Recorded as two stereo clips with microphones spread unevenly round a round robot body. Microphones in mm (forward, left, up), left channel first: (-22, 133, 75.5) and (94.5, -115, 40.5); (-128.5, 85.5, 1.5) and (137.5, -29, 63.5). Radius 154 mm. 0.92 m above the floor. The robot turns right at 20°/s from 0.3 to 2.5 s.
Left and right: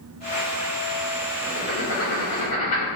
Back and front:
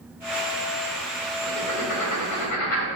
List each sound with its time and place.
1.5 s writing: 160° left, 1.4 m; by 2.9 s straight behind, 1.4 m